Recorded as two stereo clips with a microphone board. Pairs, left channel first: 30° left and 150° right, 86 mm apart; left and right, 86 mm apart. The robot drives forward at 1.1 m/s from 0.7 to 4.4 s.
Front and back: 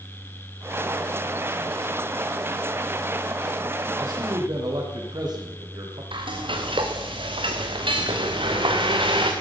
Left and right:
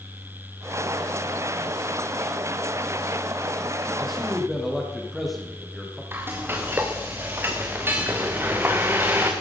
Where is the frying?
155° right, 2.5 m.